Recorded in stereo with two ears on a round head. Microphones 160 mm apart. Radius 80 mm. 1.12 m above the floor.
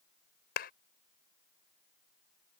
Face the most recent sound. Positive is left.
turn(degrees=60)  # may be behind; listen again after turning